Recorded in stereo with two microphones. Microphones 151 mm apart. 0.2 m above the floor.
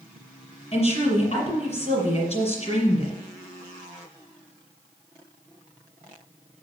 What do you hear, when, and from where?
0.7 s a woman speaking: 45° left (ahead or behind), 5 m